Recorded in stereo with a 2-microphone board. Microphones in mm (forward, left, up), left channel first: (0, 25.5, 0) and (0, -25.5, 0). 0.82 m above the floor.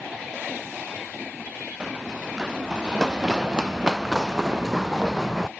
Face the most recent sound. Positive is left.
turn(degrees=-10)  # may be behind; listen again after turning